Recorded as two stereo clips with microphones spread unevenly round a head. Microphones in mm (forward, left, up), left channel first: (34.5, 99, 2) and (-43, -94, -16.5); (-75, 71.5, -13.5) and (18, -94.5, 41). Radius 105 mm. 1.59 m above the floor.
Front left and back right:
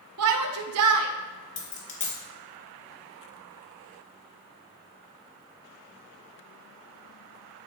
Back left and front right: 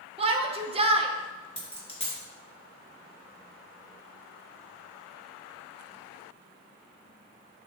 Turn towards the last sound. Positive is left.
turn(degrees=45)